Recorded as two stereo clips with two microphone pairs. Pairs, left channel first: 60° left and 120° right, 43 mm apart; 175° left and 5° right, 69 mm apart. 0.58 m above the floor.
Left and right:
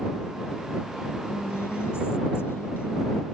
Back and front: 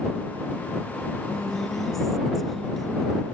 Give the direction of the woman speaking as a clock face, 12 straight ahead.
9 o'clock.